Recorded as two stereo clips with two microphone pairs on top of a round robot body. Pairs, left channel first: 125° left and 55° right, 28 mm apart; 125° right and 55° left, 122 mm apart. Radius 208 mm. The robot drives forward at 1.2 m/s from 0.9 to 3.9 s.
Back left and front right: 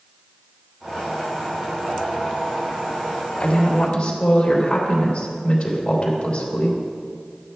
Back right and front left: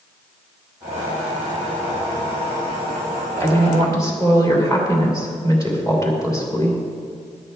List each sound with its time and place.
3.4 s a woman speaking: 170° left, 1.9 m; by 6.8 s 175° left, 2.5 m